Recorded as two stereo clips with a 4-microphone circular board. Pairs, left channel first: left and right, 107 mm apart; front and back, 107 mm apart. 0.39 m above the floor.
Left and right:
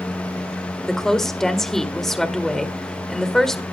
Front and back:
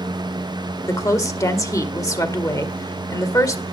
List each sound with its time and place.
0.9 s a woman speaking: 5° left, 1.6 m